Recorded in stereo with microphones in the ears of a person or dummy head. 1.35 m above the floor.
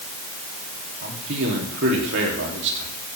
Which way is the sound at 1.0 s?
70° right (ahead or behind).